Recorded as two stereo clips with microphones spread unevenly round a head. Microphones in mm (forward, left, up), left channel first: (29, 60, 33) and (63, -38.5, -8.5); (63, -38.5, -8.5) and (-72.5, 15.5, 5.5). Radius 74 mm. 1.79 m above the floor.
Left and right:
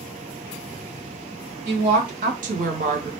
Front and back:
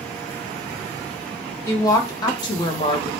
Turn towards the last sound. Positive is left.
turn(degrees=-60)